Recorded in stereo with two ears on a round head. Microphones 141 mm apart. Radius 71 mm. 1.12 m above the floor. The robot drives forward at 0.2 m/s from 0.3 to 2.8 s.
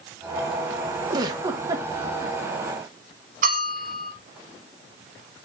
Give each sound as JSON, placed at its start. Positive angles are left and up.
{"t": 1.1, "sound": "a giggle", "side_deg": -25, "distance_m": 1.1}
{"t": 3.4, "sound": "a bell", "side_deg": -55, "distance_m": 4.5}